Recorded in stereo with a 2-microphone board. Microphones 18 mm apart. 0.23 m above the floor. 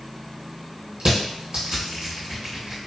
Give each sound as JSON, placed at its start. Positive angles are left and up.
{"t": 1.0, "sound": "crushing", "side_deg": -85, "distance_m": 1.9}